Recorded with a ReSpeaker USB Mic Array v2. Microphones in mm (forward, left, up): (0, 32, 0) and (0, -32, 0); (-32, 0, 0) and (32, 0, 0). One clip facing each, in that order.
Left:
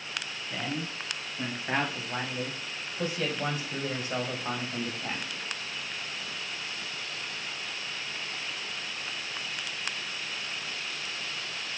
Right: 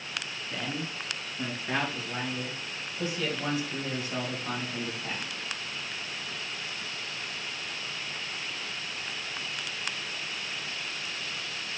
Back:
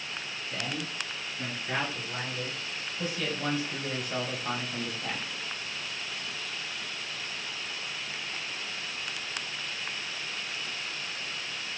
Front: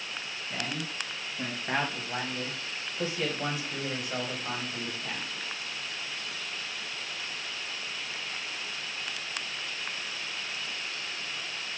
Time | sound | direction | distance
0.5 | a man speaking | 20° left | 2.5 m